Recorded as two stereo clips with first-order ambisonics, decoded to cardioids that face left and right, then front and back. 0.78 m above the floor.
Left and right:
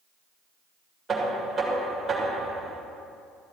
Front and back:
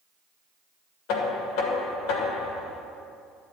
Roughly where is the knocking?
Ahead.